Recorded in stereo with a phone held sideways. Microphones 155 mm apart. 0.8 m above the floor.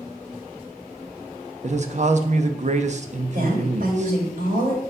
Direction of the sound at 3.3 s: 70° right (ahead or behind).